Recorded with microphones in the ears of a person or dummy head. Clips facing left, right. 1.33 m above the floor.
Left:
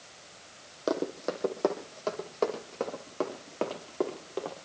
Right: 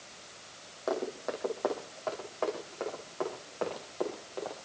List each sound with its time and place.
0.9 s running footsteps: 40° left (ahead or behind), 3.5 m; by 4.5 s 45° left (ahead or behind), 7 m